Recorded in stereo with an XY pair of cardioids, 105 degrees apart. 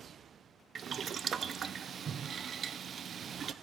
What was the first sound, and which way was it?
Boiling, 50° right.